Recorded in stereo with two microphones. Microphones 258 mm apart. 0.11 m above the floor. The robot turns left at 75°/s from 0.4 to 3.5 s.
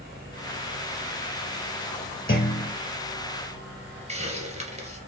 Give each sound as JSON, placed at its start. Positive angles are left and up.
{"t": 2.3, "sound": "a clunk", "azimuth_deg": 105, "distance_m": 1.1}
{"t": 4.1, "sound": "a hiss", "side_deg": -25, "distance_m": 2.0}